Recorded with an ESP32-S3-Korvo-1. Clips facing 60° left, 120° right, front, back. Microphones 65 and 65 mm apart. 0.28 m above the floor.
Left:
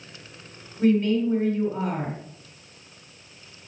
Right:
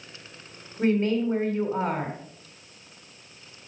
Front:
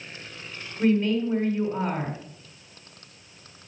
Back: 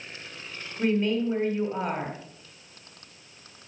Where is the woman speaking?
115° right, 1.8 m.